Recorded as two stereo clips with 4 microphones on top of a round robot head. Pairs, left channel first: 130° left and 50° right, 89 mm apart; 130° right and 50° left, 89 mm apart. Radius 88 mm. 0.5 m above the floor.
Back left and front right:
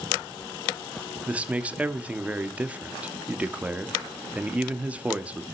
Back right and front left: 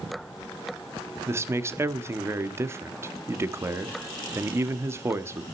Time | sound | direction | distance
1.3 | a man speaking | 15° left | 1.2 m